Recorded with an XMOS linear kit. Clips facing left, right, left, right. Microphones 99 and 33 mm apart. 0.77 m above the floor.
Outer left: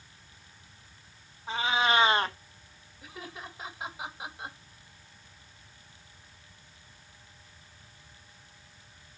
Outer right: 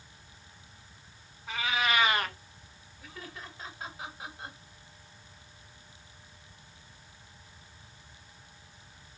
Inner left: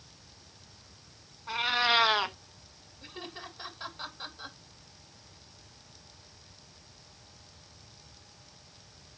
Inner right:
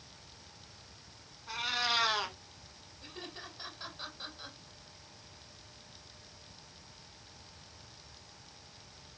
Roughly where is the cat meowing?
Left.